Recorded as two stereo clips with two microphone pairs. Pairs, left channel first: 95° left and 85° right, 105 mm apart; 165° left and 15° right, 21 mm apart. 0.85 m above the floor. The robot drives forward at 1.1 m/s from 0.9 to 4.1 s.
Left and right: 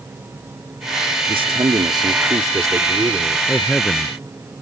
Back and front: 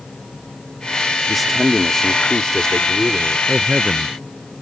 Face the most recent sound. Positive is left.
turn(degrees=15)